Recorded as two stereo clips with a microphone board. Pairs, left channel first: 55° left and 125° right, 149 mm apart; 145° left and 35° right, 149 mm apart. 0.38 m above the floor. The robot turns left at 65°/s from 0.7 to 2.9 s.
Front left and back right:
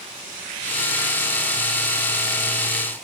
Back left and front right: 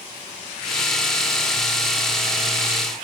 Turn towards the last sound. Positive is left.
No sound to turn to.